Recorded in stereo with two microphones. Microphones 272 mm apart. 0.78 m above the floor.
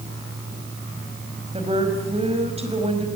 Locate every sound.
1.5 s a woman speaking: 20° right (ahead or behind), 5 m